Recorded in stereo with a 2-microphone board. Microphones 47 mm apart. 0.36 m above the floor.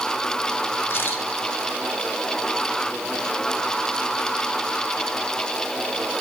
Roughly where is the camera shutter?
Left.